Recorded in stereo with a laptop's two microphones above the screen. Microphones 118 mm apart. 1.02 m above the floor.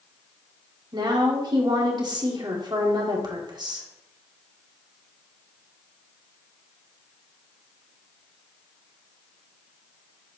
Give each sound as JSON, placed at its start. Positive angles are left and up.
{"t": 0.9, "sound": "a woman speaking", "side_deg": -40, "distance_m": 2.0}